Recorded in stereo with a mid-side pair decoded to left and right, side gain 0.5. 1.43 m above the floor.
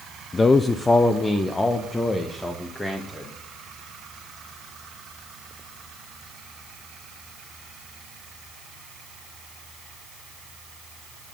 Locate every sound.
0.3 s a man speaking: 30° left, 0.6 m; by 3.3 s 20° left, 2.5 m